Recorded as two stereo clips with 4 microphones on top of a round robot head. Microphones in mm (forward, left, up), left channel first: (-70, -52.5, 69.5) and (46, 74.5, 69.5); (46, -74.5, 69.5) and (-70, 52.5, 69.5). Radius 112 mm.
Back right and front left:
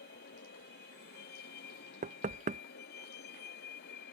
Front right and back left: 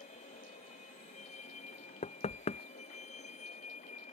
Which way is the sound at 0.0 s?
100° right.